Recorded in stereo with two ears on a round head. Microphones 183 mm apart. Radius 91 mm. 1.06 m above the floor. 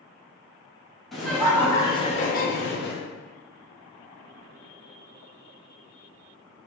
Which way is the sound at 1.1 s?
Centre (ahead or behind).